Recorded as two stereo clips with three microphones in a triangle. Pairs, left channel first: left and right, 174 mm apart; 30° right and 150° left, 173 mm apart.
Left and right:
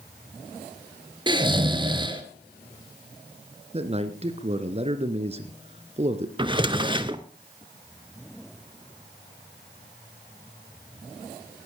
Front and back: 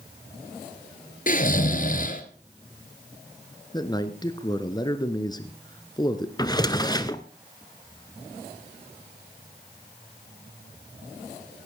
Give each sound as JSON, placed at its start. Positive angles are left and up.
{"t": 1.3, "sound": "snoring", "azimuth_deg": -35, "distance_m": 1.5}
{"t": 3.7, "sound": "a man speaking", "azimuth_deg": -80, "distance_m": 1.4}
{"t": 6.4, "sound": "a drawer", "azimuth_deg": -70, "distance_m": 0.8}